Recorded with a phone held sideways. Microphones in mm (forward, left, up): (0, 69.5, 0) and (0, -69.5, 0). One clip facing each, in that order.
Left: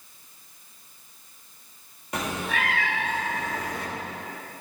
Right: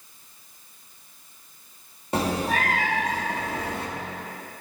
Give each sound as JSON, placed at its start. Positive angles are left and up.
{"t": 2.1, "sound": "a cat meowing", "side_deg": -30, "distance_m": 0.7}